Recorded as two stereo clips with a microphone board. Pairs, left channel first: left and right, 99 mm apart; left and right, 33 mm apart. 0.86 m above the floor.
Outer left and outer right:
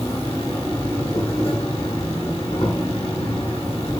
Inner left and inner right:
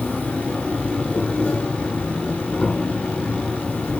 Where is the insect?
85° left, 1.2 m.